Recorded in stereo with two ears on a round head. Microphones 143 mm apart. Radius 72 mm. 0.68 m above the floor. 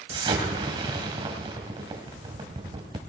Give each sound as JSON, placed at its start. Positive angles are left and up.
{"t": 0.1, "sound": "an explosion", "side_deg": -35, "distance_m": 2.5}